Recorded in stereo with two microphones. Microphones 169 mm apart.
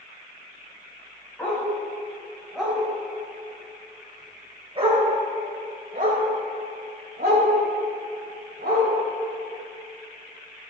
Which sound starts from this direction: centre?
A dog barking, at 1.4 s.